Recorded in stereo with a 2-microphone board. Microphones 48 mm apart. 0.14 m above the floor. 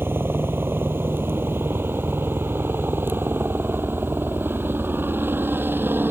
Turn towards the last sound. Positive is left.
turn(degrees=-40)  # may be behind; listen again after turning